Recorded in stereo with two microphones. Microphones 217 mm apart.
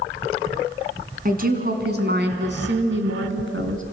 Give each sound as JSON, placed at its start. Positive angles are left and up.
{"t": 1.2, "sound": "a woman speaking", "side_deg": -40, "distance_m": 3.0}